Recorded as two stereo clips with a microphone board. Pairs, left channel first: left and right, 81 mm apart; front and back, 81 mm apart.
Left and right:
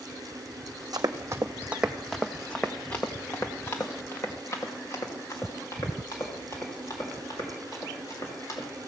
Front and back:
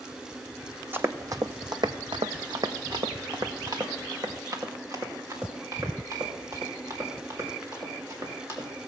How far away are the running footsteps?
About 0.7 m.